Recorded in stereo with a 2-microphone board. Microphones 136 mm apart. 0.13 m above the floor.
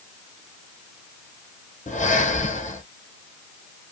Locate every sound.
1.9 s breathing: 65° left (ahead or behind), 1.1 m